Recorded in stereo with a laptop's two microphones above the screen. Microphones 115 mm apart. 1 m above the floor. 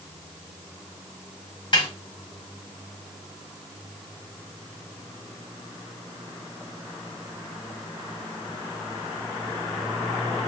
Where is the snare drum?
50° left (ahead or behind), 1.5 m.